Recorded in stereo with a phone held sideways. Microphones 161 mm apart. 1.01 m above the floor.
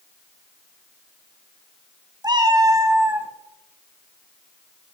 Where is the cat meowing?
25° right (ahead or behind), 0.9 m; by 3.3 s 10° right (ahead or behind), 0.9 m.